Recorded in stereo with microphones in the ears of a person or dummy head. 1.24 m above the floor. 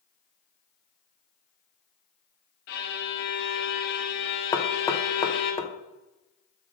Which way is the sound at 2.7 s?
60° left (ahead or behind).